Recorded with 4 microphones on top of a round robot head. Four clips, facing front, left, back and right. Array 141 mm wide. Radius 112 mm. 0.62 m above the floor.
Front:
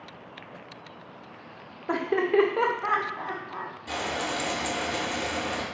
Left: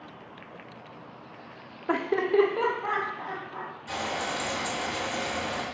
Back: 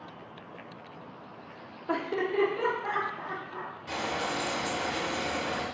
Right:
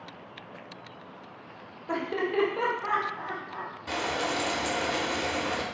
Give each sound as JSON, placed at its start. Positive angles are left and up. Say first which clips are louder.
{"t": 1.9, "sound": "laughter", "louder": "left 4 dB, front 5 dB", "azimuth_deg": 65, "distance_m": 0.7}
{"t": 3.9, "sound": "frying", "louder": "right 2 dB, front 1 dB", "azimuth_deg": -80, "distance_m": 1.2}